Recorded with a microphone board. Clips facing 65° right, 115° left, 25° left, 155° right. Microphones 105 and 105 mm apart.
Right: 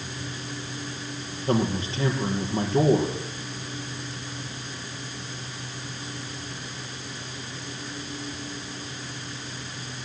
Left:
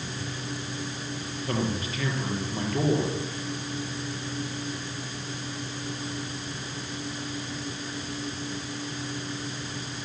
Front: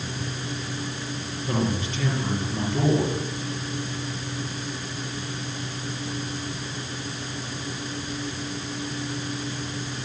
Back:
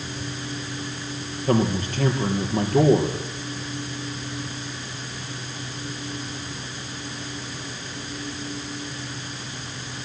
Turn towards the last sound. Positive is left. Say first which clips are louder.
# right 5 dB, back 5 dB
turn(degrees=-125)